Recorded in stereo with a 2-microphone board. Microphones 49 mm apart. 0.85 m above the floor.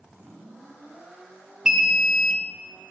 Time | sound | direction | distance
1.6 | an alarm | 10° right (ahead or behind) | 1.0 m